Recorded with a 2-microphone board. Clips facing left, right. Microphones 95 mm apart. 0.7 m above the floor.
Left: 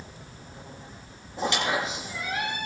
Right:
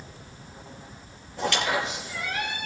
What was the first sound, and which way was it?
A squeak, 20° left (ahead or behind).